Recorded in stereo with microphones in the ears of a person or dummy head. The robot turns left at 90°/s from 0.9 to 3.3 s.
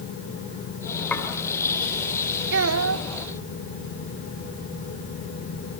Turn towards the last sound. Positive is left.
turn(degrees=-130)